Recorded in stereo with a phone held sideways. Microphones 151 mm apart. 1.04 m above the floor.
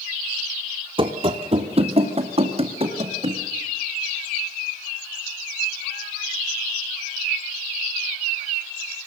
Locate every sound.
1.0 s running footsteps: 35° right (ahead or behind), 1.2 m; by 3.4 s 40° right (ahead or behind), 3 m